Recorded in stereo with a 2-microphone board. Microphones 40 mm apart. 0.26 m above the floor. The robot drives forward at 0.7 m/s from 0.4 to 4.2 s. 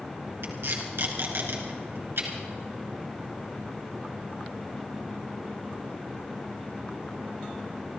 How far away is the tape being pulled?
About 3 m.